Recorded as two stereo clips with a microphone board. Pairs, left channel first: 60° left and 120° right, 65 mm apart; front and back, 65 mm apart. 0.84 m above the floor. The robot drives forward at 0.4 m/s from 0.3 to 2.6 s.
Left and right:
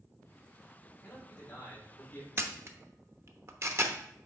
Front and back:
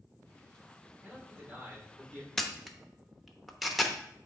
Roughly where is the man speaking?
Left.